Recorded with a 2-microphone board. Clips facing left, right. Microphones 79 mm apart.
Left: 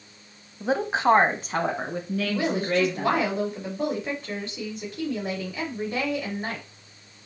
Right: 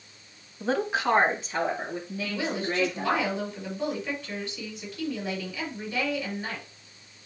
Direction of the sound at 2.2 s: 40° left (ahead or behind).